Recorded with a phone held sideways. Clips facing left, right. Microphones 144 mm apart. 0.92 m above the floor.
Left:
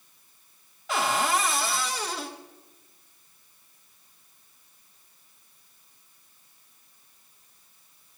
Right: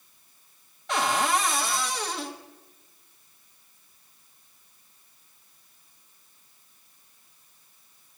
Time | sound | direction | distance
0.9 | a cupboard door | centre (ahead or behind) | 0.7 m